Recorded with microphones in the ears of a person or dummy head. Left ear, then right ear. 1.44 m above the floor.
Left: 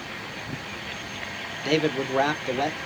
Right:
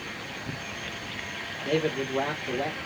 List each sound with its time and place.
1.6 s a man speaking: 50° left (ahead or behind), 1.1 m